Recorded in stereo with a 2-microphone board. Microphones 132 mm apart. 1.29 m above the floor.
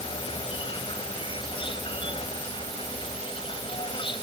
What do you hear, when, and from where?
0.0 s an insect: 40° left (ahead or behind)